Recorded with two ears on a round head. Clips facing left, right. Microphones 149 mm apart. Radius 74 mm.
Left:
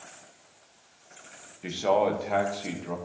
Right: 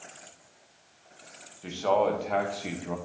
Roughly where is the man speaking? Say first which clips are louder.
Left 1 dB; centre.